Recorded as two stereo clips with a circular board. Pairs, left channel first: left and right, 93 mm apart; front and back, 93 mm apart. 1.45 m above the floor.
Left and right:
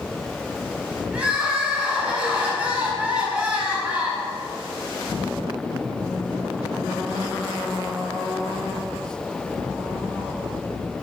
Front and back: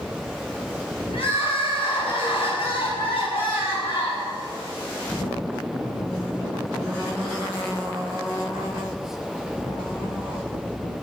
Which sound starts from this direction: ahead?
Crying, at 1.1 s.